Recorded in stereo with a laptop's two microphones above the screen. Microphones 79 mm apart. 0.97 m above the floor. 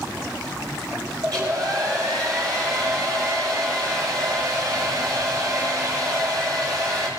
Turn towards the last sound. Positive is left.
turn(degrees=-55)  # may be behind; listen again after turning